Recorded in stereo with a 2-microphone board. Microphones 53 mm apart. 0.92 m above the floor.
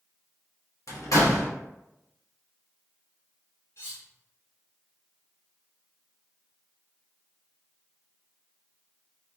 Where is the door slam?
80° left, 0.7 m.